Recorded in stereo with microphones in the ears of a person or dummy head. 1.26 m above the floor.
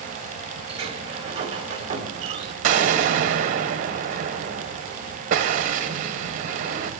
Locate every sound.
0.7 s a sliding door: 30° right (ahead or behind), 1.9 m
2.6 s an explosion: 40° right (ahead or behind), 1.7 m